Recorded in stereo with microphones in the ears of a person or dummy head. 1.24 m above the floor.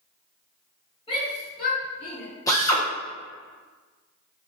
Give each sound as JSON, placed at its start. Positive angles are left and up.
{"t": 1.1, "sound": "a shout", "side_deg": 20, "distance_m": 1.4}
{"t": 2.5, "sound": "a drill", "side_deg": 15, "distance_m": 0.6}